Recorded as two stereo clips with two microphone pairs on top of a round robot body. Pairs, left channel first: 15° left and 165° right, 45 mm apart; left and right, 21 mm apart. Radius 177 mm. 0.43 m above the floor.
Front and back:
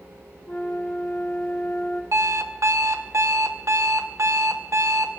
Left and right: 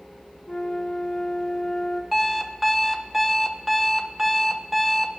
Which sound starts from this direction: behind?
An alarm clock, at 2.1 s.